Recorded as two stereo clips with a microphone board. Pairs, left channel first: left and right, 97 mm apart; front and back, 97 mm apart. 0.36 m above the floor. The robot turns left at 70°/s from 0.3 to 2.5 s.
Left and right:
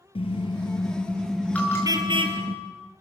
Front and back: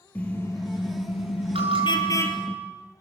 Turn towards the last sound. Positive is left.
turn(degrees=100)